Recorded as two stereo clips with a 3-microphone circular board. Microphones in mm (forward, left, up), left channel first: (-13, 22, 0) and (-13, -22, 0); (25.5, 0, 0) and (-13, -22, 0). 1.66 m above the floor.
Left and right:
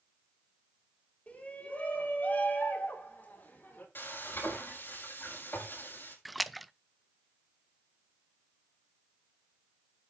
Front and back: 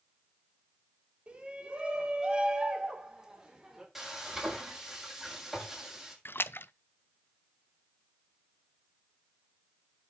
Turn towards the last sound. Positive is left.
turn(degrees=0)